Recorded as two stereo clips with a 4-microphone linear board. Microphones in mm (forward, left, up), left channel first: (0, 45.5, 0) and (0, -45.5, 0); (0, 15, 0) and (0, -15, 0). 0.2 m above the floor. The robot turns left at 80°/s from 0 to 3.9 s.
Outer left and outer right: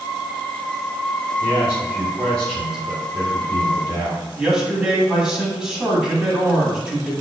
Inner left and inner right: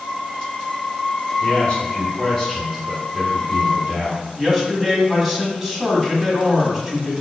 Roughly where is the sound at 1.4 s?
Left.